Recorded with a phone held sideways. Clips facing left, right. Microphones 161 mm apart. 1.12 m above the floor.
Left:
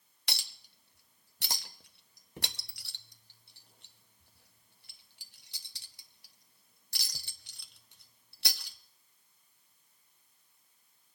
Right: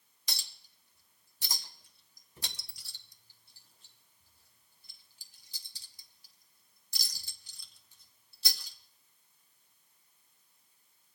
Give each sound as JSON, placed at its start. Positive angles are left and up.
{"t": 0.3, "sound": "a clink", "side_deg": 70, "distance_m": 0.9}